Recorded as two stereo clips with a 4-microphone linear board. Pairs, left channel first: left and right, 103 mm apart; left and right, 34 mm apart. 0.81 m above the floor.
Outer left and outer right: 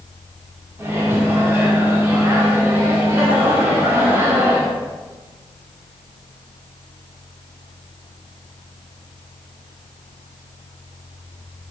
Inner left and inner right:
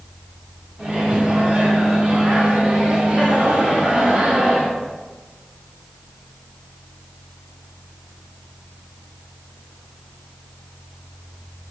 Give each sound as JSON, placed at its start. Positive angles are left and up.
{"t": 0.8, "sound": "a microwave", "side_deg": -25, "distance_m": 2.0}